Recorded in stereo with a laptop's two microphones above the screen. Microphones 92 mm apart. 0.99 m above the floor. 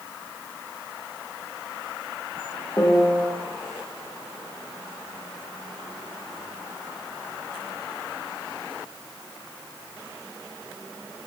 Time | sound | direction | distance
2.8 | a piano | 30° left (ahead or behind) | 1.2 m